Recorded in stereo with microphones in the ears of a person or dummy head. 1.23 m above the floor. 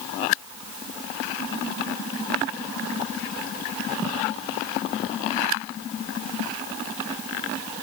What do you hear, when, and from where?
Only background noise.